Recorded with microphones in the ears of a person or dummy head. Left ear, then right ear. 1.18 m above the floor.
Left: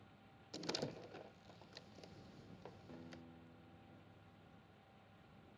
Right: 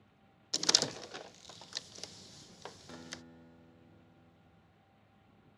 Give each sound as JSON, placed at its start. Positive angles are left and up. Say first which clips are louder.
{"t": 0.5, "sound": "a door slam", "louder": "right 15 dB", "side_deg": -50}
{"t": 2.9, "sound": "a guitar", "louder": "right 8 dB", "side_deg": -55}